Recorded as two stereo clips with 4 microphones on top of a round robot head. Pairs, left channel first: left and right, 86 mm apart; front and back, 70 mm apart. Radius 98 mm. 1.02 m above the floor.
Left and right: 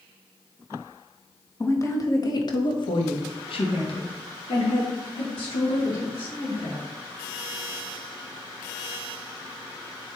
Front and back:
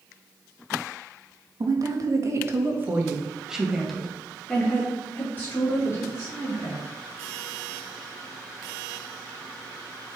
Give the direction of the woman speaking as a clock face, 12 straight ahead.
7 o'clock.